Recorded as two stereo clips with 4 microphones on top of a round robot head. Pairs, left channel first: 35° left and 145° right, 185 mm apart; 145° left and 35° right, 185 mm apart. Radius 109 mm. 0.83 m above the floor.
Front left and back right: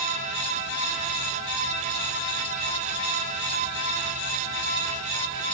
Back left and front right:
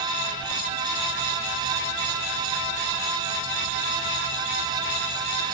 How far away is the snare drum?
No snare drum in this recording.